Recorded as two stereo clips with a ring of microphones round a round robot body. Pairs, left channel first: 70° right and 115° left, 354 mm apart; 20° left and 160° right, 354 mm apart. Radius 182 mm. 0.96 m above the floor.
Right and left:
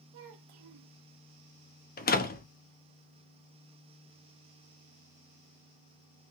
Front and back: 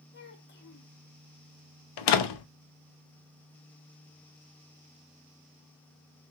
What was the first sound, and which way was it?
A child speaking, 85° left.